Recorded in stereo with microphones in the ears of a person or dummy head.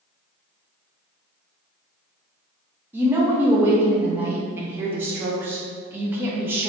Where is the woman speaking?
10° right (ahead or behind), 0.7 m.